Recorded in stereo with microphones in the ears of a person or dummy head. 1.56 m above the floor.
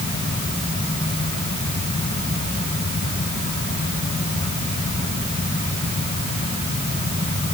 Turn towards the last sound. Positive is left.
No sound to turn to.